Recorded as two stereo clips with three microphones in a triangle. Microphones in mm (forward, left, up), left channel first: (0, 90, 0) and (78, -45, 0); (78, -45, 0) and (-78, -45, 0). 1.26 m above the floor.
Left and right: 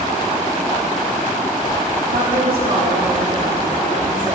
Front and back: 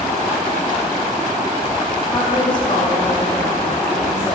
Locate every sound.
2.1 s a woman speaking: 65° right, 2.5 m; by 4.3 s 40° right, 3.5 m